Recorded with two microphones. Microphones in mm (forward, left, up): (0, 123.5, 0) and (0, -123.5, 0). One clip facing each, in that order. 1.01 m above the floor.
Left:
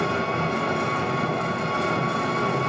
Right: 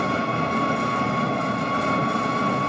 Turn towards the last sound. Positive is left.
turn(degrees=-35)  # may be behind; listen again after turning